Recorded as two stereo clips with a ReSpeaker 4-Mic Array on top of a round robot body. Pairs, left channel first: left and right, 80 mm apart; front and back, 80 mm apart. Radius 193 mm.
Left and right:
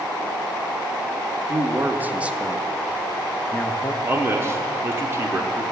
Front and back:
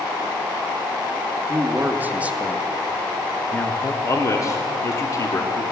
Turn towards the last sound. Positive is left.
turn(degrees=-40)